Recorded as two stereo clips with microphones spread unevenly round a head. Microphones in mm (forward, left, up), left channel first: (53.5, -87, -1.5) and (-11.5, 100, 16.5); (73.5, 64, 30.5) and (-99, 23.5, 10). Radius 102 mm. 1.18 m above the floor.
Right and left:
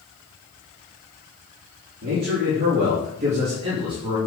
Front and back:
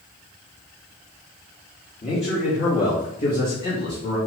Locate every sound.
2.0 s a man speaking: 70° left, 2.5 m; by 4.2 s 35° left, 2.5 m